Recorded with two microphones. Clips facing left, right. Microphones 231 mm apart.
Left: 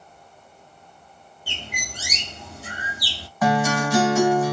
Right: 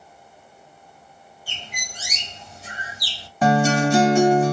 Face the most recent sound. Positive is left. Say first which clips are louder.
# right 3 dB
turn(degrees=-30)  # may be behind; listen again after turning